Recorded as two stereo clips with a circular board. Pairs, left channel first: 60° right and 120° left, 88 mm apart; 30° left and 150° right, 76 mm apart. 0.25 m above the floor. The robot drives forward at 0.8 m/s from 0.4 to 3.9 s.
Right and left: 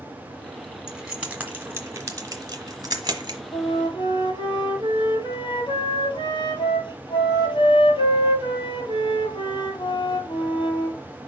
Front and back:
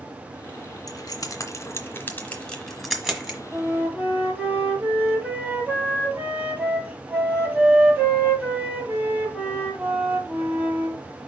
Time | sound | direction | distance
0.9 | keys jangling | 40° left | 1.6 m
3.5 | a flute | 75° right | 1.6 m